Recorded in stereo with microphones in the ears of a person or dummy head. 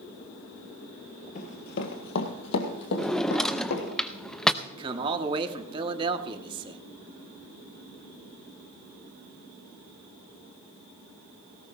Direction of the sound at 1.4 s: 45° left (ahead or behind).